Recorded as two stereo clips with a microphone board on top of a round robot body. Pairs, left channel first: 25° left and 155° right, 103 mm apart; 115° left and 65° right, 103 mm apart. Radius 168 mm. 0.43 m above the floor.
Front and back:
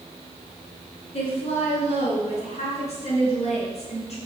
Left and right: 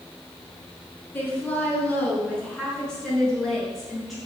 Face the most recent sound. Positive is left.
turn(degrees=25)